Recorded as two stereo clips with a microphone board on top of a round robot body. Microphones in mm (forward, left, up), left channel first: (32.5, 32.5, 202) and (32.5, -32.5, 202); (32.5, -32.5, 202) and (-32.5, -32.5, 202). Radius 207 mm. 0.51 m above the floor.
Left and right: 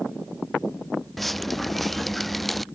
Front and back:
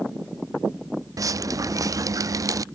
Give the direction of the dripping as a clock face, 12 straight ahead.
6 o'clock.